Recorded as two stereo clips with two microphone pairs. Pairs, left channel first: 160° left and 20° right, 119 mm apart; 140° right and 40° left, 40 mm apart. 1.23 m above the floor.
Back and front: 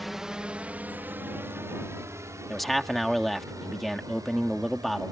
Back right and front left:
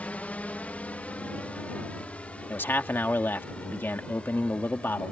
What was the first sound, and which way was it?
A drone, 110° right.